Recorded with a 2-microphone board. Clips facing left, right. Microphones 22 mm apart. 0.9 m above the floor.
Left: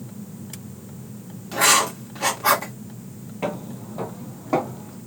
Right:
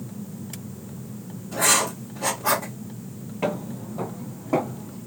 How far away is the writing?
About 2 m.